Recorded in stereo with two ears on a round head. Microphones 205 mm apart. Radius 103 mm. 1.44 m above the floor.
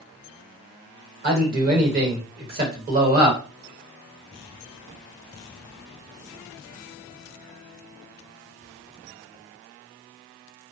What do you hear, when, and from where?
1.2 s a man speaking: 40° right (ahead or behind), 1.0 m